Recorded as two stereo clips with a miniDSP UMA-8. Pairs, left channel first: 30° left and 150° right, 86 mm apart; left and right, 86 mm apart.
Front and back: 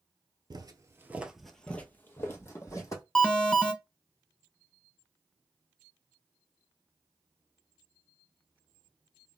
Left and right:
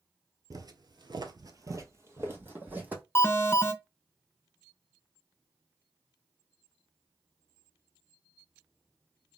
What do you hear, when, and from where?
0.5 s footsteps: 130° right, 0.5 m; by 3.0 s 20° right, 1.1 m
3.1 s an alarm: 100° left, 0.5 m